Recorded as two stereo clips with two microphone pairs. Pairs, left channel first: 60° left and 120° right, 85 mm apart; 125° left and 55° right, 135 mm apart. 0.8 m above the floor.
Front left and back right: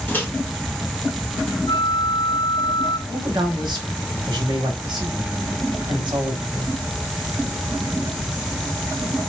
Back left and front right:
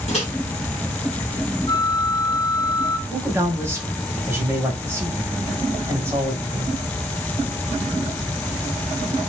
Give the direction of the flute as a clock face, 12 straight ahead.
10 o'clock.